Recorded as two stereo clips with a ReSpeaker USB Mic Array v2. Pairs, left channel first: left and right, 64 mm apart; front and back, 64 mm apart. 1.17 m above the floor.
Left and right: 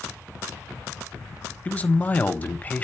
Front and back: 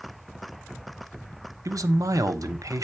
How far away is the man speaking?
About 1.0 m.